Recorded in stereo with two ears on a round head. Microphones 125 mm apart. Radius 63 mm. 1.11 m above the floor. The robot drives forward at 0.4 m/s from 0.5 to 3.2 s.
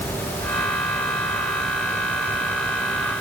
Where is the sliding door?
No sliding door in this recording.